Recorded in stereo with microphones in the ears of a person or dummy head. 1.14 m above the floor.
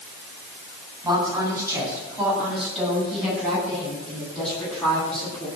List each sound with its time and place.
1.0 s a woman speaking: 15° right (ahead or behind), 9 m; by 5.5 s 10° left (ahead or behind), 12.5 m